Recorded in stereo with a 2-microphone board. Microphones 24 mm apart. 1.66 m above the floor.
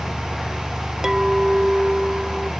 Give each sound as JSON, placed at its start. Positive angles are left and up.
{"t": 1.0, "sound": "a clink", "side_deg": -20}